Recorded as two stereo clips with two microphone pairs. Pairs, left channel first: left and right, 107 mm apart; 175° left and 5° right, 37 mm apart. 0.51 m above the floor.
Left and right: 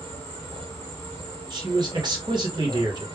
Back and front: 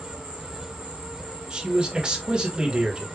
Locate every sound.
0.0 s an insect: 40° left, 2 m
1.5 s a man speaking: 60° right, 2 m